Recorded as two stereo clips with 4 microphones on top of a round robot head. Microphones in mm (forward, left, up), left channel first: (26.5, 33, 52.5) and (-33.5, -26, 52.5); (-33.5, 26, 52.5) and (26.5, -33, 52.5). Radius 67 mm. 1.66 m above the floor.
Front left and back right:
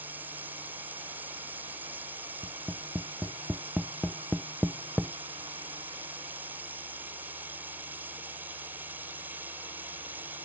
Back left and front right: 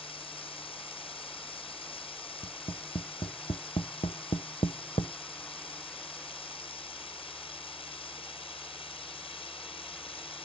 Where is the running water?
155° left.